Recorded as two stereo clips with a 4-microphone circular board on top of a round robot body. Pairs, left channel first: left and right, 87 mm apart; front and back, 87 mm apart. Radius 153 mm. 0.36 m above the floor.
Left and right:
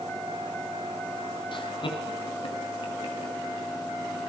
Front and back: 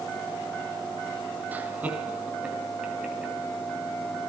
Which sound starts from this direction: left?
Laughter, at 1.5 s.